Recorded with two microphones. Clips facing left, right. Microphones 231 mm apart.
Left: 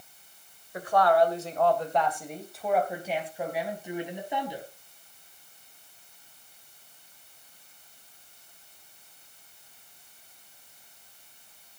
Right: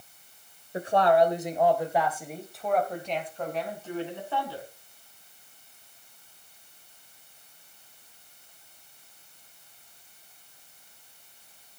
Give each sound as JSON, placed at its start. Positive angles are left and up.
{"t": 0.7, "sound": "a woman speaking", "side_deg": -30, "distance_m": 2.5}